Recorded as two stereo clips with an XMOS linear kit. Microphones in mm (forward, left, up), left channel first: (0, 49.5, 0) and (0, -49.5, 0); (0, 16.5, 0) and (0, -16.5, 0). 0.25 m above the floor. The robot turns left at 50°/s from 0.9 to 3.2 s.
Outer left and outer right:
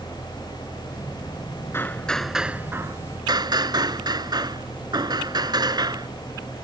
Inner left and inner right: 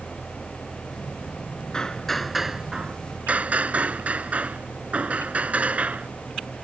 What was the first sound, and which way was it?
Hammering, 25° left.